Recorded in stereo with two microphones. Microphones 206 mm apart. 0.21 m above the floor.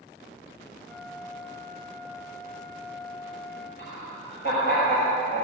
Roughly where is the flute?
Centre.